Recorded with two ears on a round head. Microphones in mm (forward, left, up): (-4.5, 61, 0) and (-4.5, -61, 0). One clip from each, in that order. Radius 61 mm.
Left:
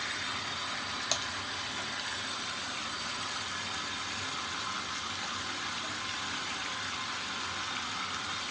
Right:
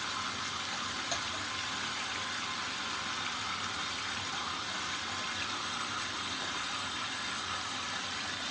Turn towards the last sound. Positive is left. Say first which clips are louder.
# left 4 dB
turn(degrees=50)  # may be behind; listen again after turning